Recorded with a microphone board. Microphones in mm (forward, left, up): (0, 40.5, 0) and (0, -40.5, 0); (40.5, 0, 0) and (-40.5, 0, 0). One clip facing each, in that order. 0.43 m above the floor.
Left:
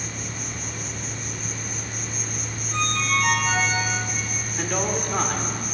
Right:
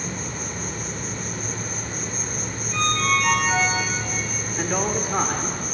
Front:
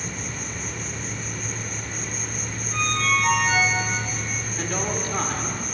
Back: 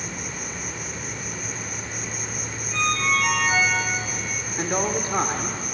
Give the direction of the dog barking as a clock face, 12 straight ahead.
I don't hear a dog barking.